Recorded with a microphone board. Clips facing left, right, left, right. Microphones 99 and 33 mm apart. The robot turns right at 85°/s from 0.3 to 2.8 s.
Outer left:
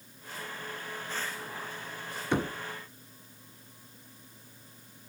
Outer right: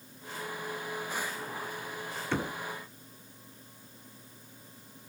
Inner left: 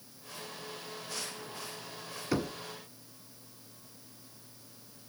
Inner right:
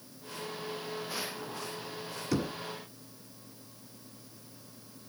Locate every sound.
2.3 s knocking: 15° left (ahead or behind), 1.2 m; by 2.6 s 20° left (ahead or behind), 1.2 m